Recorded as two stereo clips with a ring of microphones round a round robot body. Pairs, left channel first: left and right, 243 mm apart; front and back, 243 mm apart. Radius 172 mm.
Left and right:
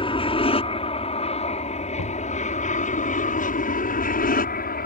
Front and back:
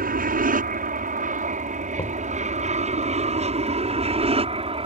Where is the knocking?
65° left.